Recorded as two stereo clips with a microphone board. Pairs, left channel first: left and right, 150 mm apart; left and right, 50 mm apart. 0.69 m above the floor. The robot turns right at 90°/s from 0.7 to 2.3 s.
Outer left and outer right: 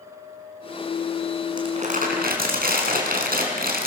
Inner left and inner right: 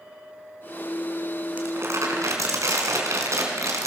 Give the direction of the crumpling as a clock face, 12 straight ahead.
5 o'clock.